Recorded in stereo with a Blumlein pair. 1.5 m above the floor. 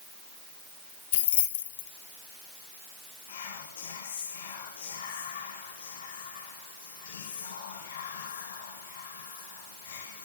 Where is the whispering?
65° left, 1.7 m.